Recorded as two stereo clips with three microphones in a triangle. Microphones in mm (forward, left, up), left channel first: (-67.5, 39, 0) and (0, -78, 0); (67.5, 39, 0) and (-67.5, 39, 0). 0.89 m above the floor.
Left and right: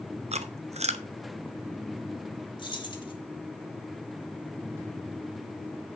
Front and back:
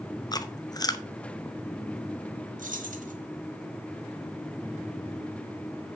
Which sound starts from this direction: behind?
Keys jangling, at 2.6 s.